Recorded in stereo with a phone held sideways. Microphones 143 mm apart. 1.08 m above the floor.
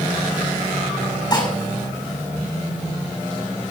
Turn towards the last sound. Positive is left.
turn(degrees=30)  # may be behind; listen again after turning